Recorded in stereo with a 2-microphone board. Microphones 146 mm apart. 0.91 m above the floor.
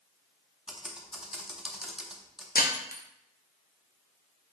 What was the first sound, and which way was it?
Typing on a keyboard, 5° right (ahead or behind).